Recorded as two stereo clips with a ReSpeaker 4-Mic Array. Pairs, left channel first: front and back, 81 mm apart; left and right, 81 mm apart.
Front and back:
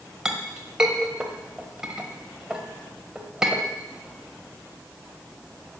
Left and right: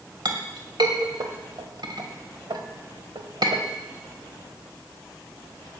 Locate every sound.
0.2 s a clink: 100° right, 1.4 m